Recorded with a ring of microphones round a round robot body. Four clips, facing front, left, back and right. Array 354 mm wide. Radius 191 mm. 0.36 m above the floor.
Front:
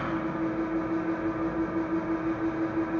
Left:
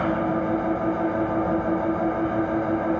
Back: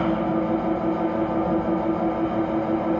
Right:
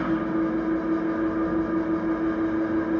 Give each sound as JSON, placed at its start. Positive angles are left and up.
{"t": 0.0, "sound": "an engine running", "azimuth_deg": 130, "distance_m": 1.2}